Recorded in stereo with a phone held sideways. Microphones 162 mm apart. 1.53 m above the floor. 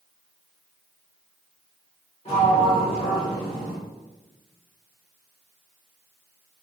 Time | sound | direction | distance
2.2 | a sliding door | 40° left (ahead or behind) | 1.5 m